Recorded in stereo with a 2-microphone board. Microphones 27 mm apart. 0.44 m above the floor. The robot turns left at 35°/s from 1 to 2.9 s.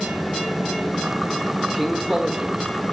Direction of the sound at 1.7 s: 35° right.